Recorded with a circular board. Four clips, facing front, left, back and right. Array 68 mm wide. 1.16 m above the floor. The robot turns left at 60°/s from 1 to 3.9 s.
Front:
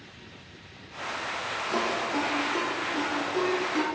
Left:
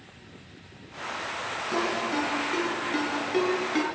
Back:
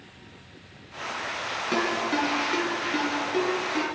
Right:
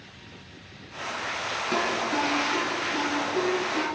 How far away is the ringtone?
About 5 m.